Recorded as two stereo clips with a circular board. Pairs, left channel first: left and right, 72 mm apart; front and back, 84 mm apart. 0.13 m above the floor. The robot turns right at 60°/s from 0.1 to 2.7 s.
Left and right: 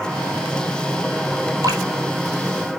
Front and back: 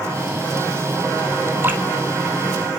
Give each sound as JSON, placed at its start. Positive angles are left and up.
{"t": 1.6, "sound": "dripping", "azimuth_deg": -120, "distance_m": 1.4}